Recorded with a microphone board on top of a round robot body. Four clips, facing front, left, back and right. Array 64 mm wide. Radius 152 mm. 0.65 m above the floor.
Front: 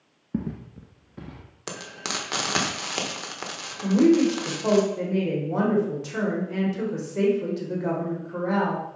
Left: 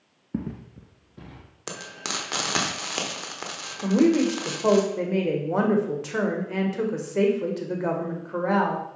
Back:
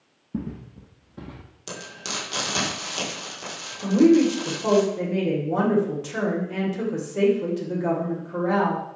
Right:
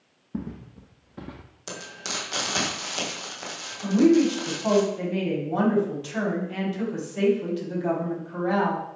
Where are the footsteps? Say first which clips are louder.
Left 2 dB, front 1 dB; 45° left, 1.0 m; by 1.5 s 110° right, 0.7 m.